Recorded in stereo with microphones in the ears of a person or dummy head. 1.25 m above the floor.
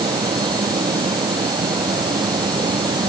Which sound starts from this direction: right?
A fan, at 0.0 s.